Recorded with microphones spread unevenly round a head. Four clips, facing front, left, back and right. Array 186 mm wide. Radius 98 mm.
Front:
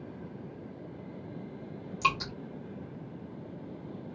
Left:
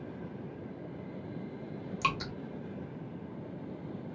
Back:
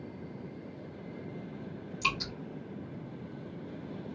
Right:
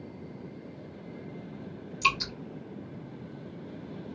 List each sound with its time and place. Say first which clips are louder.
2.0 s dripping: right 4 dB, front 5 dB; 35° left, 1.2 m